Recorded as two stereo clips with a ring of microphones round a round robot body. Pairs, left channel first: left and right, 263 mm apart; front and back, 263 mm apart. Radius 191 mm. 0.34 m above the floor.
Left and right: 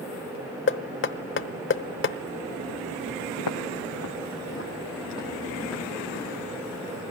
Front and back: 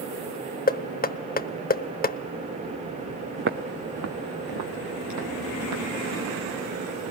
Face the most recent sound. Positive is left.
turn(degrees=-170)